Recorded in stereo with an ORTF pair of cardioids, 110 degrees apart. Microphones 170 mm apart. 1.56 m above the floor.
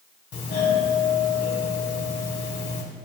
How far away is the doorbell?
About 1.6 m.